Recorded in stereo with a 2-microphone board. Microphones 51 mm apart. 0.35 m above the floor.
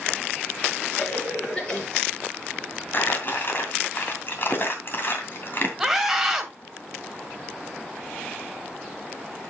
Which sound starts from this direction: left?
Crumpling, at 2.9 s.